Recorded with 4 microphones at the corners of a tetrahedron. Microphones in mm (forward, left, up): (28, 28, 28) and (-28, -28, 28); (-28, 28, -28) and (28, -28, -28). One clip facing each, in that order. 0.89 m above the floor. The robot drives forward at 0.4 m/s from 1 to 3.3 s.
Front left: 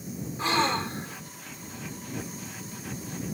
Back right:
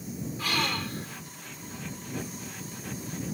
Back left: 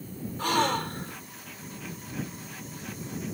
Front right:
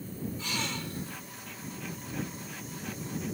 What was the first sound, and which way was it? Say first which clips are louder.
A gasp: front left 6 dB, back left 15 dB; 105° left.